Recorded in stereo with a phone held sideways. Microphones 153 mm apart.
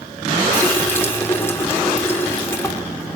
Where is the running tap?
15° left (ahead or behind), 2.5 m.